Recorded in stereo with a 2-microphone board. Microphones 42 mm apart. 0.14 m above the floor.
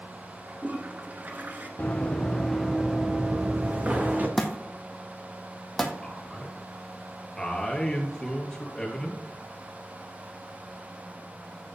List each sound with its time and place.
0.5 s a toilet flushing: 45° right (ahead or behind), 1.5 m
1.8 s running footsteps: 30° left (ahead or behind), 1.6 m; by 4.3 s 40° right (ahead or behind), 2.5 m
4.4 s a thud: 5° left (ahead or behind), 1.5 m
6.0 s a man speaking: 15° left (ahead or behind), 2.5 m